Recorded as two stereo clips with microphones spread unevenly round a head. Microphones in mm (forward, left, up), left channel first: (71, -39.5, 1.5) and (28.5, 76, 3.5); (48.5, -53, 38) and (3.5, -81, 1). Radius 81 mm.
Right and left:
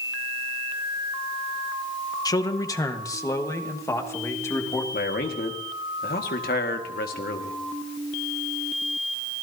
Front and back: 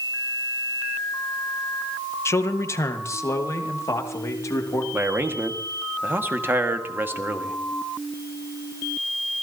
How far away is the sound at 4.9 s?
About 1.7 m.